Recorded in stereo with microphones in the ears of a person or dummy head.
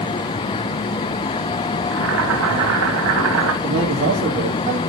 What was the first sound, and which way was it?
Boiling, 80° right.